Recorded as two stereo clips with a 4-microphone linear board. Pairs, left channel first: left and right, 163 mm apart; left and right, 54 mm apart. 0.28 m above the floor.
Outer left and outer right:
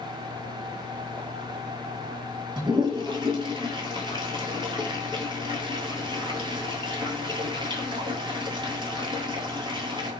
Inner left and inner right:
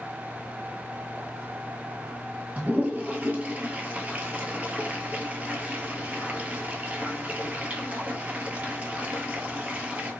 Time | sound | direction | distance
2.6 | a toilet flushing | 30° right (ahead or behind) | 0.9 m